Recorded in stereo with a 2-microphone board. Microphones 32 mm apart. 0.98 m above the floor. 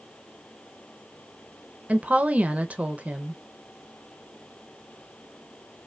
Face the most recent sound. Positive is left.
turn(degrees=-50)  # may be behind; listen again after turning